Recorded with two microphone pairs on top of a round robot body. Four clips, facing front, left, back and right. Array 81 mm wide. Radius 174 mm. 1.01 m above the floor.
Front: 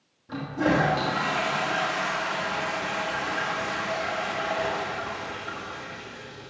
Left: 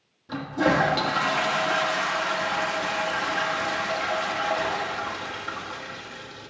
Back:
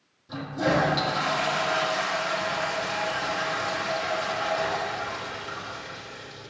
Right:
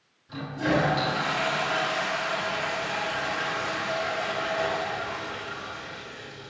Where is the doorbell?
No doorbell in this recording.